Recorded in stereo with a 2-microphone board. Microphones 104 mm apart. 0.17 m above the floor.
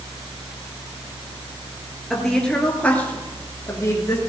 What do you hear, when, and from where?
2.1 s a woman speaking: 5° left (ahead or behind), 3.5 m; by 4.3 s 35° left (ahead or behind), 2.5 m